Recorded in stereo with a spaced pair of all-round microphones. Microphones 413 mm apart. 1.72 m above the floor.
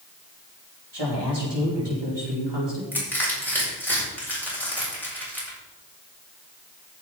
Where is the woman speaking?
80° right, 5 m.